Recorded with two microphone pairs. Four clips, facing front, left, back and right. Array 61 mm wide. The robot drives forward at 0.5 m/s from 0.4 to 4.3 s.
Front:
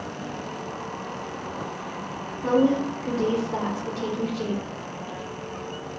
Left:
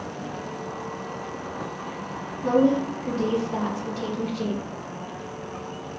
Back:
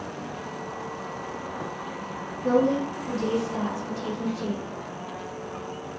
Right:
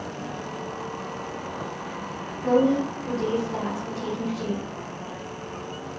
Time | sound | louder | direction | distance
2.4 | a woman speaking | even, front 1 dB | 25° left | 1.8 m